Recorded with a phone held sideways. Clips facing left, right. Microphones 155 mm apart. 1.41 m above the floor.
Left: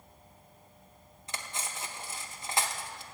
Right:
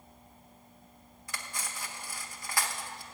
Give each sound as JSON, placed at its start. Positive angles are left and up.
{"t": 1.3, "sound": "cutlery clinking", "side_deg": 25, "distance_m": 0.7}